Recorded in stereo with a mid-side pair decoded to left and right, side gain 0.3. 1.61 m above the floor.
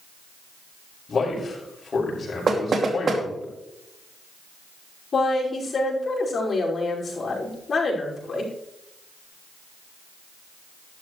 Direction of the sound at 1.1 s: 55° left.